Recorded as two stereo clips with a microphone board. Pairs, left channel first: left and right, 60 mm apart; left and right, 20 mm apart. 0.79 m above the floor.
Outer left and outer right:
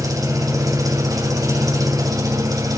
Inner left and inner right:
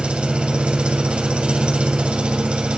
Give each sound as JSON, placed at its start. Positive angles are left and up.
{"t": 0.0, "sound": "an engine running", "side_deg": -80, "distance_m": 2.5}